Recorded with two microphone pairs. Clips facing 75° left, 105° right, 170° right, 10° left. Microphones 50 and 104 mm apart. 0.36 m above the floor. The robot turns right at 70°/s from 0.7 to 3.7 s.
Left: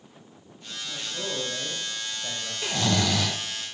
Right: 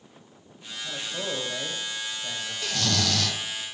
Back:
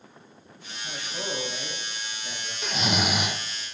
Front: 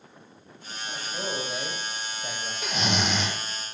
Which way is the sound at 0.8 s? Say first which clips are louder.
Right 2 dB, front 1 dB; 100° right.